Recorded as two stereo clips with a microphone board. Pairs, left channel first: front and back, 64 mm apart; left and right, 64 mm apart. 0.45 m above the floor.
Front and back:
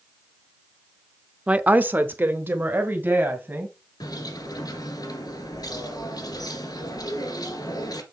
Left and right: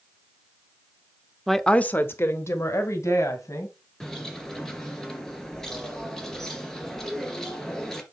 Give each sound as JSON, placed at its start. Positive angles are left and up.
{"t": 1.5, "sound": "a woman speaking", "azimuth_deg": -175, "distance_m": 0.7}
{"t": 4.0, "sound": "a bird", "azimuth_deg": 10, "distance_m": 2.0}